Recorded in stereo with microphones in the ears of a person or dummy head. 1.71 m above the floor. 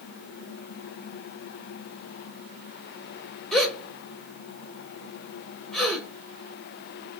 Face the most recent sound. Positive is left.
turn(degrees=0)  # may be behind; listen again after turning